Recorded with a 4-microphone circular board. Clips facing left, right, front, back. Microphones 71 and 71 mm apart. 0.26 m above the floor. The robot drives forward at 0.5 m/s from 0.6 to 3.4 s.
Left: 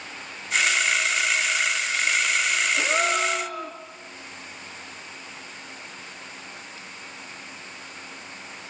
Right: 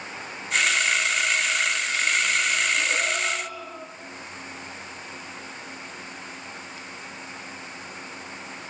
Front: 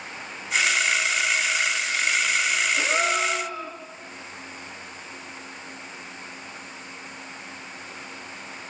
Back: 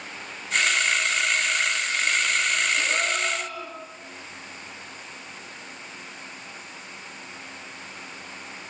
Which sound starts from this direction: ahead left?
A gasp, at 2.8 s.